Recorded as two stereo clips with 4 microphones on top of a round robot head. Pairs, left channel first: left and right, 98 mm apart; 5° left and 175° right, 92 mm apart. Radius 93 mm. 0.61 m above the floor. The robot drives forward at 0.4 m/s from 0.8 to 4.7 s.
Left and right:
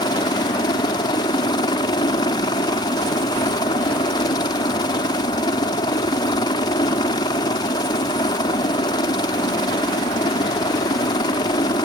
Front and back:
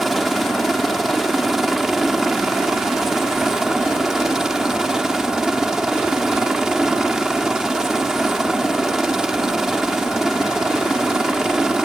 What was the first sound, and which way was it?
A helicopter, 95° left.